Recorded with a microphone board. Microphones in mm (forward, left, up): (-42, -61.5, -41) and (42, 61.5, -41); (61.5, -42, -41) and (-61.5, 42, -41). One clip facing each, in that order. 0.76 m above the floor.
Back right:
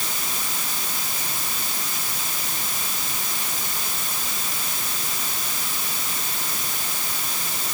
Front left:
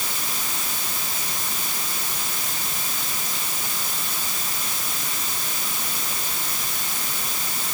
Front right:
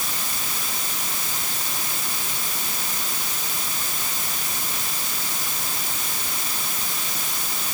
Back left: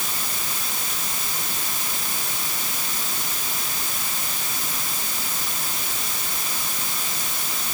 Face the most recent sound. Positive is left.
No sound to turn to.